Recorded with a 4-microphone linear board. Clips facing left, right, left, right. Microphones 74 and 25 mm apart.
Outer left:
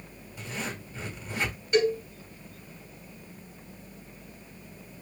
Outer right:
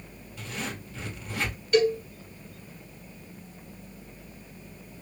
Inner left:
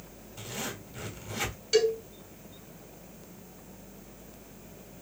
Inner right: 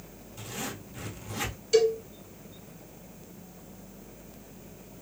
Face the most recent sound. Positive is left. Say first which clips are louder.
# outer right 2 dB, inner right 2 dB
turn(degrees=20)  # may be behind; listen again after turning